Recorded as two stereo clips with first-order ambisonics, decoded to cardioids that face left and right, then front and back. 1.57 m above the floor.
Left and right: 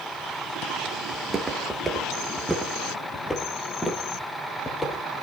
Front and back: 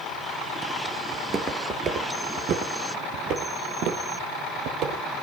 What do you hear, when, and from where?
1.1 s footsteps: 140° right, 1.6 m; by 5.2 s 165° left, 3 m